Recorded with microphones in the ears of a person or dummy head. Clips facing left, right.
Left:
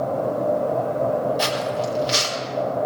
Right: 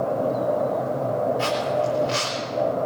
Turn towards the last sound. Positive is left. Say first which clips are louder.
# right 1 dB
turn(degrees=65)  # may be behind; listen again after turning